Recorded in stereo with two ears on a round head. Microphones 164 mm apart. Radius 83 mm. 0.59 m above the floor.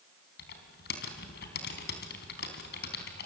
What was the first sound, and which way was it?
Typing on a keyboard, 65° left (ahead or behind).